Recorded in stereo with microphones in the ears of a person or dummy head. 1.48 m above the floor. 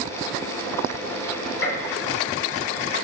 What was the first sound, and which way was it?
A gunshot, 80° left.